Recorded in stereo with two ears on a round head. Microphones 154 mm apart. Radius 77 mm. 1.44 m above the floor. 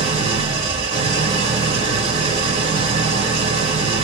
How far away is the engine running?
About 1.6 m.